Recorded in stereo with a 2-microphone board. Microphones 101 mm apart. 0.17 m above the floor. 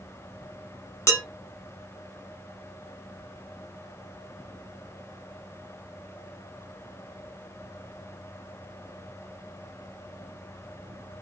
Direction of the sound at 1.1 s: 25° left (ahead or behind).